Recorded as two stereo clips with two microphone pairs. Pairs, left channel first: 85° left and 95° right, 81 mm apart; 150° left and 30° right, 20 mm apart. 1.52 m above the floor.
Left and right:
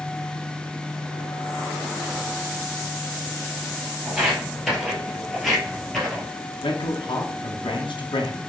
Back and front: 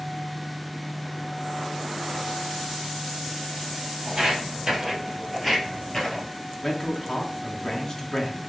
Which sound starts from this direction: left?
A man speaking, at 6.6 s.